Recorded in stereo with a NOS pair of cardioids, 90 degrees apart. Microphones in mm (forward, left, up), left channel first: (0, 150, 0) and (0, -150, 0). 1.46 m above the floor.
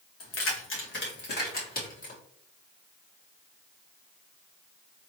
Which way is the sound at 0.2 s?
50° left.